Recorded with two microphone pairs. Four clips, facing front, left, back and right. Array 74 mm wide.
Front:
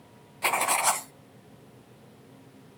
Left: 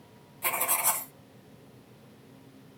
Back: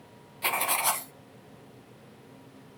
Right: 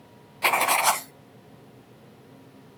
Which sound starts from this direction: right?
Writing, at 0.4 s.